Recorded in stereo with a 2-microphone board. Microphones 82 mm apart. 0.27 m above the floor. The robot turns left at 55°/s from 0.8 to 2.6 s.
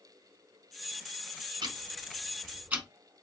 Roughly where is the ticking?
Right.